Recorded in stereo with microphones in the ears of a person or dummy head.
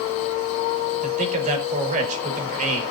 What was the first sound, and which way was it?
A man speaking, 45° right (ahead or behind).